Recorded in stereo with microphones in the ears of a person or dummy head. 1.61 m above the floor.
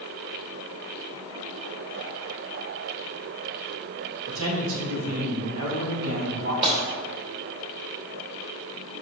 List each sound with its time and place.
4.3 s a man speaking: 75° right (ahead or behind), 2 m
6.6 s breaking glass: 30° right (ahead or behind), 2 m